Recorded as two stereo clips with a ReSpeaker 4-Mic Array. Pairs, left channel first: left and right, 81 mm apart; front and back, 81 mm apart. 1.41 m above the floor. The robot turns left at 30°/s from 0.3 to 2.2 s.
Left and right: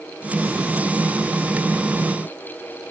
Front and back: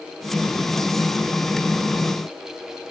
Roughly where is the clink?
I don't hear a clink.